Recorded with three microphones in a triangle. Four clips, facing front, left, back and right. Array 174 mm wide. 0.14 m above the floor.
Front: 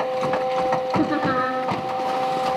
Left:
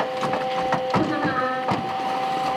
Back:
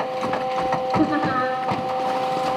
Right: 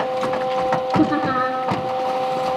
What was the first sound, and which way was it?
Laughter, 60° right.